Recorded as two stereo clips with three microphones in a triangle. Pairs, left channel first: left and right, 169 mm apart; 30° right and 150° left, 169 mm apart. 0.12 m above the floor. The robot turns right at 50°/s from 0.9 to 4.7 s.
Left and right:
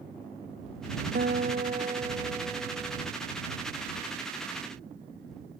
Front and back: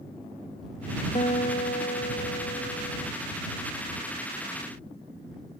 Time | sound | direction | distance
1.1 | a guitar | 75° right | ?